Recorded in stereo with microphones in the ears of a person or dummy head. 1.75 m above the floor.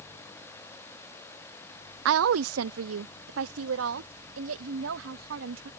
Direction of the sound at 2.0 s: 70° right (ahead or behind).